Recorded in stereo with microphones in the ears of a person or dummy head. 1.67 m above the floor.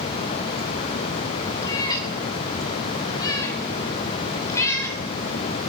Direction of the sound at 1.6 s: 25° left (ahead or behind).